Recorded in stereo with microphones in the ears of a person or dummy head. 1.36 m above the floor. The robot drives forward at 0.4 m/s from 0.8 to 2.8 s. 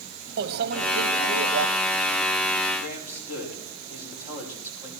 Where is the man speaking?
45° left (ahead or behind), 5.5 m.